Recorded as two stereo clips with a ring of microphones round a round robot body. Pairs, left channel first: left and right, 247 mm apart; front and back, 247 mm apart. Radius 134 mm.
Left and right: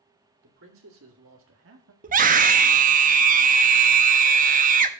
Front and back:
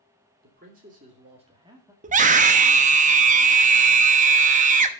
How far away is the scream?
About 0.8 m.